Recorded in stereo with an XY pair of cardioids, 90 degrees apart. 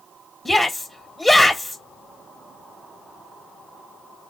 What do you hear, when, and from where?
0.5 s a shout: 10° left, 0.9 m